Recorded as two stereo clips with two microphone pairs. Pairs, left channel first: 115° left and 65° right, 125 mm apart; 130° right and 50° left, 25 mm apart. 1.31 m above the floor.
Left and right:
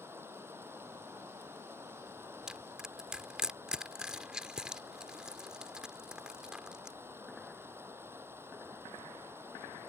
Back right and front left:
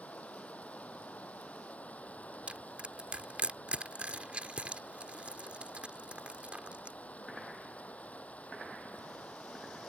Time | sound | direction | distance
0.0 | running water | 135° right | ?
2.5 | crushing | 20° left | ?